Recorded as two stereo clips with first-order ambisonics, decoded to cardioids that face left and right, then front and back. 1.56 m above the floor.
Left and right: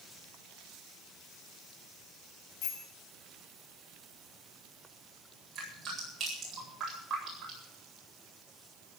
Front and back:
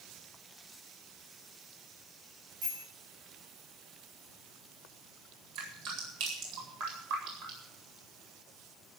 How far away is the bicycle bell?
About 7.5 m.